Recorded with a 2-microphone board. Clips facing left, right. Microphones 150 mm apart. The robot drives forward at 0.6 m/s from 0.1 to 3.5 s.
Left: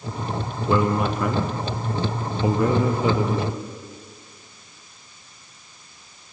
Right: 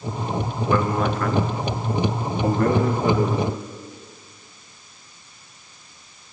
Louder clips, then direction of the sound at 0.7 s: Left 1 dB; 20° left (ahead or behind).